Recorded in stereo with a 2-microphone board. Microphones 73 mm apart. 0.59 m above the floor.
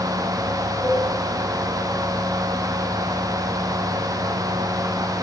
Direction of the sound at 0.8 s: 5° left (ahead or behind).